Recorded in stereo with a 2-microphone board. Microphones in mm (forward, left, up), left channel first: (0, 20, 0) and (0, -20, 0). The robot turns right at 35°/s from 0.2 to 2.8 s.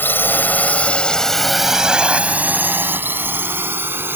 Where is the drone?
65° left (ahead or behind); by 4.2 s 70° right (ahead or behind).